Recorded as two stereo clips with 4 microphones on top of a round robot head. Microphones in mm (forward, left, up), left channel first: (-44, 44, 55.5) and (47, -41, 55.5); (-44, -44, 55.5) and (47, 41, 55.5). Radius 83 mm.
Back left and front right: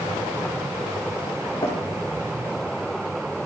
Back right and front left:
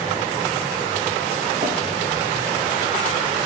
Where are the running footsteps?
70° left, 7.5 m.